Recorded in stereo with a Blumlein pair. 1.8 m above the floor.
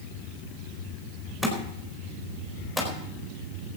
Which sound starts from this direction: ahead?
A thud, at 1.4 s.